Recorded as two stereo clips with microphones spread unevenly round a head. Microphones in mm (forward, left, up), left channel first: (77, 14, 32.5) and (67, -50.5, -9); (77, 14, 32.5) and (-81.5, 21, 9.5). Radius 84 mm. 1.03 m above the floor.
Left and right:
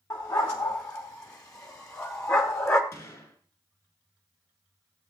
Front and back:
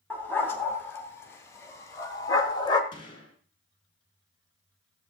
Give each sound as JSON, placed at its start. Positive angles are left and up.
{"t": 0.1, "sound": "a dog barking", "azimuth_deg": 75, "distance_m": 3.0}
{"t": 2.9, "sound": "a gunshot", "azimuth_deg": 55, "distance_m": 4.0}